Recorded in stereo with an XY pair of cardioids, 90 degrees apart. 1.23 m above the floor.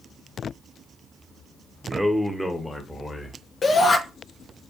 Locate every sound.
1.8 s a man speaking: 20° right, 0.8 m; by 3.4 s 20° left, 1.6 m
3.6 s a shout: 50° left, 0.8 m